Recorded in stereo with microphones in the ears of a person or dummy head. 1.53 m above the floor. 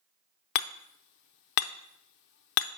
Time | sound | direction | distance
0.6 | hammering | 60° left (ahead or behind) | 0.5 m